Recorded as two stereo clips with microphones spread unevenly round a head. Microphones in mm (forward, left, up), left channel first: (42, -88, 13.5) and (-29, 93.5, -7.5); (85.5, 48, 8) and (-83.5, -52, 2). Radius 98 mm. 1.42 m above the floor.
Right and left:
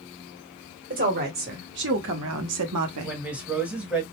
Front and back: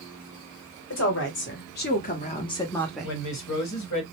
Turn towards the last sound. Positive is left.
turn(degrees=25)